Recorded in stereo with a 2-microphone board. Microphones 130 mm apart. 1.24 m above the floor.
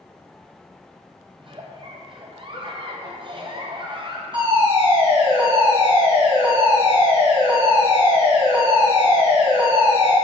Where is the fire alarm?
40° right (ahead or behind), 2 m.